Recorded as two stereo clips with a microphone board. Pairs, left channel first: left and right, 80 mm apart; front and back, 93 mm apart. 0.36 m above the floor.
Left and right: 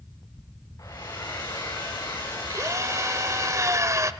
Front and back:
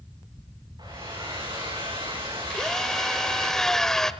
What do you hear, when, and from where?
0.8 s a hair dryer: 135° left, 8 m
2.5 s a drill: 80° right, 1.0 m